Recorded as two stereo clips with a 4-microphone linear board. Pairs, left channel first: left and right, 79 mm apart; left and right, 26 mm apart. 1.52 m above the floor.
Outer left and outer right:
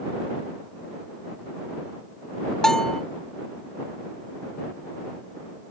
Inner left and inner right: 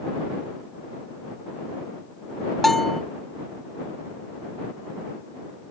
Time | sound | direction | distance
2.6 | a bell | 10° left (ahead or behind) | ?